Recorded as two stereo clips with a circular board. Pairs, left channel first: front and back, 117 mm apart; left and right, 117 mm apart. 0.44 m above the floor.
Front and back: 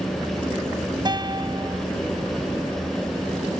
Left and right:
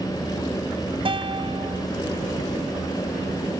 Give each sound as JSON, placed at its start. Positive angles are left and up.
{"t": 1.1, "sound": "a guitar", "azimuth_deg": -130}